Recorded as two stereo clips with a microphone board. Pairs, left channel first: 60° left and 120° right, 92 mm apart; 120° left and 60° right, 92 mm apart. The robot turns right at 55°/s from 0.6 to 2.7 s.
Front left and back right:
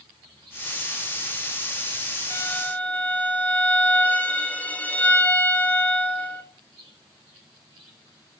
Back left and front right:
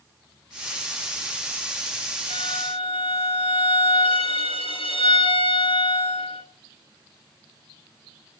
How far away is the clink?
I don't hear a clink.